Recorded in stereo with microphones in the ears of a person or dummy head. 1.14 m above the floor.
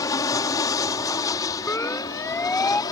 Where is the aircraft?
20° left (ahead or behind); by 2.9 s 25° left (ahead or behind).